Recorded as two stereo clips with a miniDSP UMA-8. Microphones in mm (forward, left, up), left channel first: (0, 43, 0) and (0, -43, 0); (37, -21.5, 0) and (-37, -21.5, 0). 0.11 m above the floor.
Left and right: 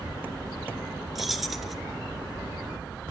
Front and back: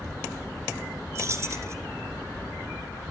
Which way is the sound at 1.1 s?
Straight behind.